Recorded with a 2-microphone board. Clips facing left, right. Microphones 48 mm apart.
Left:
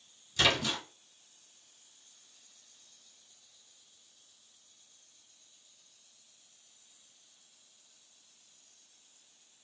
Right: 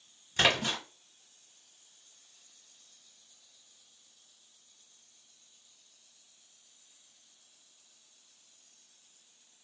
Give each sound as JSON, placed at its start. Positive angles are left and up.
{"t": 0.4, "sound": "a splash", "side_deg": -35, "distance_m": 1.0}